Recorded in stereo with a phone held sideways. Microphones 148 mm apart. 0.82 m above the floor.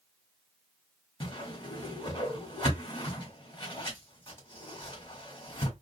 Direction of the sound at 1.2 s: 35° left (ahead or behind).